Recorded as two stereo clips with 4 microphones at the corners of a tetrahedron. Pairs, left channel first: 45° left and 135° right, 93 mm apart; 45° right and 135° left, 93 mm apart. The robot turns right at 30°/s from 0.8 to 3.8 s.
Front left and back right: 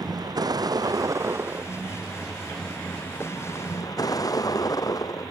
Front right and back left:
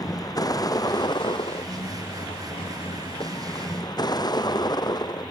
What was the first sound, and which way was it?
A vehicle, 90° right.